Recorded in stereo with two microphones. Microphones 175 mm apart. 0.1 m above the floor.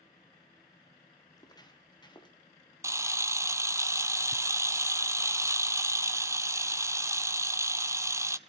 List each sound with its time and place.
1.3 s footsteps: 20° left (ahead or behind), 1.7 m; by 2.4 s 25° left (ahead or behind), 3 m
2.8 s a camera shutter: 15° right (ahead or behind), 0.6 m